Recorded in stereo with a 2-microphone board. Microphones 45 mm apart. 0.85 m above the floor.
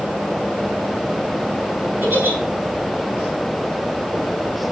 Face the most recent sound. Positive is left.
turn(degrees=-50)  # may be behind; listen again after turning